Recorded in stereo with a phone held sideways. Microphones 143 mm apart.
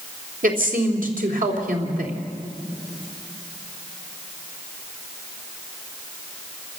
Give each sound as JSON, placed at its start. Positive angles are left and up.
{"t": 0.4, "sound": "a woman speaking", "side_deg": -75, "distance_m": 3.0}